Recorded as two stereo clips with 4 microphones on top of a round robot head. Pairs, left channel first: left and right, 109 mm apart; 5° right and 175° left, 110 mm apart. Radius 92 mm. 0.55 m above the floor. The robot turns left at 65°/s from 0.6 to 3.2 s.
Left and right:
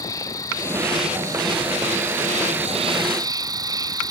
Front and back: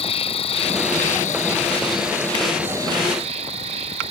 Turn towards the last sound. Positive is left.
turn(degrees=-145)